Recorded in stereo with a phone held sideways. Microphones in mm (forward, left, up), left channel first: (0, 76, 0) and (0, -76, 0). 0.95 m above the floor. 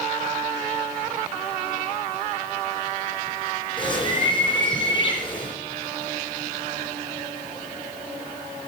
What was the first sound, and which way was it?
A bird, 30° left (ahead or behind).